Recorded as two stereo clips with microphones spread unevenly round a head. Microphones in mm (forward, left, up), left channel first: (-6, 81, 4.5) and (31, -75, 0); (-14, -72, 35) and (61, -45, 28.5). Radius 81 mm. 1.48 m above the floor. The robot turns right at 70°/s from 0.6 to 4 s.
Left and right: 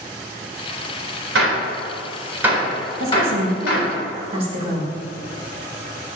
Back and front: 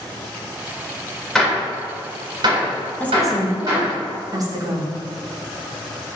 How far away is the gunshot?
About 4 m.